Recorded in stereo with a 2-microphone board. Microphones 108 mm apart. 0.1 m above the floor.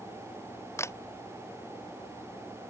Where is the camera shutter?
25° left (ahead or behind).